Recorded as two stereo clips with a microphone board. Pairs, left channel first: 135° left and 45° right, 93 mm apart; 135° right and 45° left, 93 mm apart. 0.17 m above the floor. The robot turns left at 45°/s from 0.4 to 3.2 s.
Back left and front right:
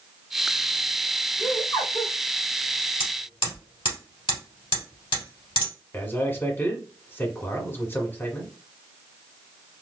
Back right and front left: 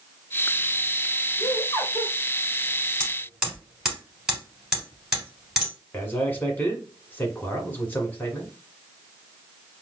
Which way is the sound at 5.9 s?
175° left.